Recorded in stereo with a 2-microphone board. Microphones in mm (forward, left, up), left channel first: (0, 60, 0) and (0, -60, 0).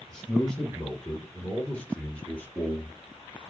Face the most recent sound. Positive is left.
turn(degrees=15)  # may be behind; listen again after turning